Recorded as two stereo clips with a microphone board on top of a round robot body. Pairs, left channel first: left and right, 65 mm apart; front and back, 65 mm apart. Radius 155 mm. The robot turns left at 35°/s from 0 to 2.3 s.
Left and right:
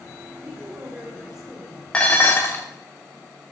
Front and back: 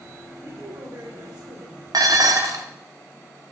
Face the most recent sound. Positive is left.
turn(degrees=150)